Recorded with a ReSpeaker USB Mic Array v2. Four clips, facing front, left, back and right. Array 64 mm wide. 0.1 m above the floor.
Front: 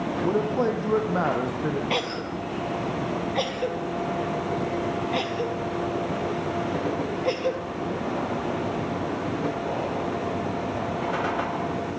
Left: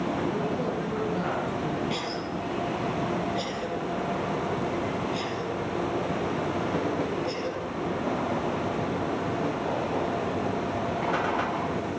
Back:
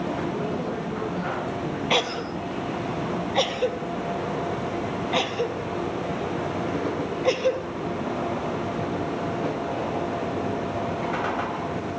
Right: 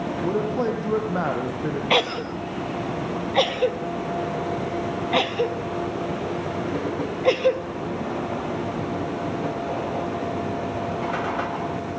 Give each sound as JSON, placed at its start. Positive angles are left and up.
{"t": 0.2, "sound": "a man speaking", "azimuth_deg": -40, "distance_m": 4.0}
{"t": 1.9, "sound": "a cough", "azimuth_deg": -105, "distance_m": 2.0}